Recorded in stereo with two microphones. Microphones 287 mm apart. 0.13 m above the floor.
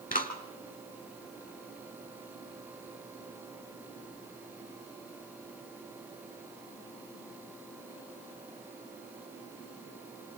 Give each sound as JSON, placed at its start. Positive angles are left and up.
{"t": 0.1, "sound": "a clap", "side_deg": 30, "distance_m": 2.0}